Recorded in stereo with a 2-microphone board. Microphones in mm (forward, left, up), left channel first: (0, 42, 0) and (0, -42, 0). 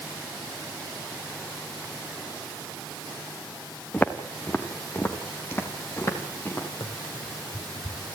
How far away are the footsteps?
About 2.5 m.